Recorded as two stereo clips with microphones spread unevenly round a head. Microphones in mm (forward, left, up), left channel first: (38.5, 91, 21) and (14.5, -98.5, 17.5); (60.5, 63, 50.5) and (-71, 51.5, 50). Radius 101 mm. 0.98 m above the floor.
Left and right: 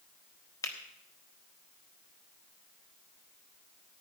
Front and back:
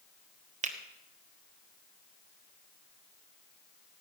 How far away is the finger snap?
About 1.4 m.